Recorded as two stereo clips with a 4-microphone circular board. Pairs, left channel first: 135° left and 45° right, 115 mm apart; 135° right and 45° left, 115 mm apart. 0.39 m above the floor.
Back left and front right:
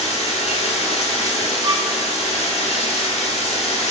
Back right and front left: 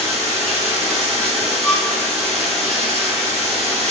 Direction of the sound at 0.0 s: 140° left.